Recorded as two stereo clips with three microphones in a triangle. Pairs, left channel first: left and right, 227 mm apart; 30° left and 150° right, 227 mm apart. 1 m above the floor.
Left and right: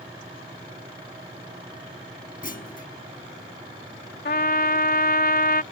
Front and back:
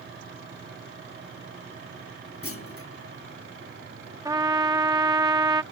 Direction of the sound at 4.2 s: 135° left.